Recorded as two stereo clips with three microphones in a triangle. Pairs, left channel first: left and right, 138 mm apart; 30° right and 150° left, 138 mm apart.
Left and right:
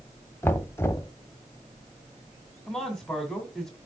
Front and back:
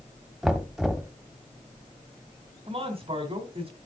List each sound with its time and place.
0.4 s knocking: 65° left, 0.8 m
2.7 s a man speaking: 175° left, 2 m